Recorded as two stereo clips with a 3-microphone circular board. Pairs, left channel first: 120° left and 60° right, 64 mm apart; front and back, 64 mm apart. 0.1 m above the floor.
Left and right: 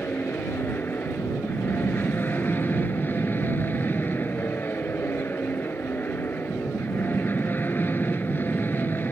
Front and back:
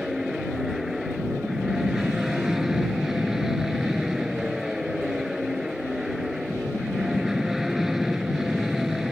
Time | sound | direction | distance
0.0 | an aircraft | 100° left | ?